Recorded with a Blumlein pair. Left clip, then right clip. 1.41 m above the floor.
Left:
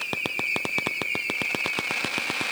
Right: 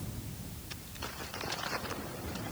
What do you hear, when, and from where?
Only background noise.